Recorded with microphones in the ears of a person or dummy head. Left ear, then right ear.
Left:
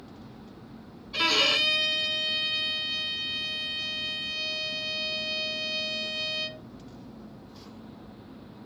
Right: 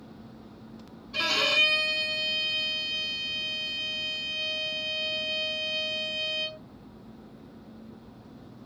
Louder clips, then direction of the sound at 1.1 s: Left 1 dB; 15° left (ahead or behind).